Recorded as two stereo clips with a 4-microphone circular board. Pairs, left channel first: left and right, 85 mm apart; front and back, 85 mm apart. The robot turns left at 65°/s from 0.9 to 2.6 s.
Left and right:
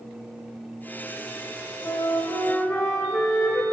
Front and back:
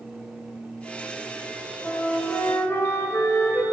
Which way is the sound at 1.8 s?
85° left.